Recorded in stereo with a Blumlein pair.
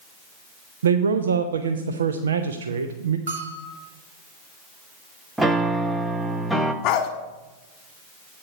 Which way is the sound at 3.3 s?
65° right.